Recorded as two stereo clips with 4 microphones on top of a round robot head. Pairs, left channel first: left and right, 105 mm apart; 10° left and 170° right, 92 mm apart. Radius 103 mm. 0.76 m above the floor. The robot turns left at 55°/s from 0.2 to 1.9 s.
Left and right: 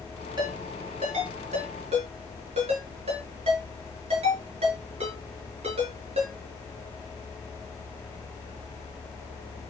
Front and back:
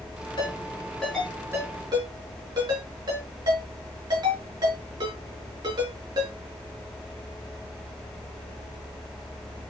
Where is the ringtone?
35° right, 6 m; by 6.3 s 120° right, 6 m.